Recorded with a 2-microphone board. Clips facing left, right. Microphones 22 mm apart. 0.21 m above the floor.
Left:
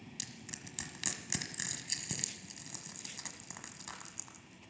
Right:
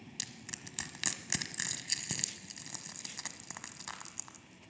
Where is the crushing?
15° right (ahead or behind), 1.3 m.